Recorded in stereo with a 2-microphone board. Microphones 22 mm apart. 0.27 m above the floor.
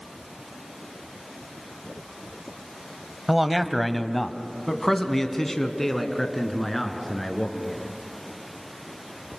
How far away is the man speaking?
About 1.1 m.